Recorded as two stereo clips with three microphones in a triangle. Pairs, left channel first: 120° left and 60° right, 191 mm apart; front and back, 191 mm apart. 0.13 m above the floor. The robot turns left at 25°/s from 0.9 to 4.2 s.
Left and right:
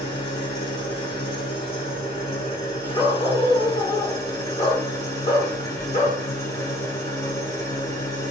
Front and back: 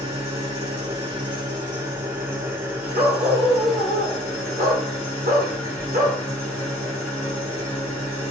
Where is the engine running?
155° left, 1.3 m; by 8.3 s 75° left, 1.3 m.